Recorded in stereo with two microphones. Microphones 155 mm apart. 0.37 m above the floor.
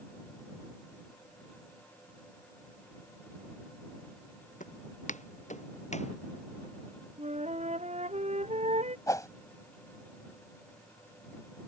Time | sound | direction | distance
4.6 | footsteps | 55° left (ahead or behind) | ?
7.2 | a flute | 45° right (ahead or behind) | ?
9.1 | a whoosh | 20° left (ahead or behind) | ?